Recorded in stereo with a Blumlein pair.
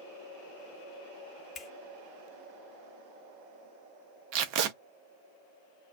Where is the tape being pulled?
40° right, 0.5 m.